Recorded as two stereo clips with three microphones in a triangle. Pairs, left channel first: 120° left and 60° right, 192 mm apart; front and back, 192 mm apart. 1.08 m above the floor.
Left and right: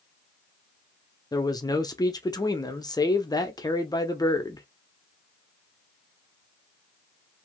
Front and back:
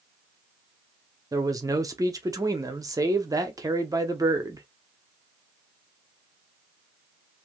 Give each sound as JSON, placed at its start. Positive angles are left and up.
{"t": 1.3, "sound": "a man speaking", "azimuth_deg": 145, "distance_m": 0.7}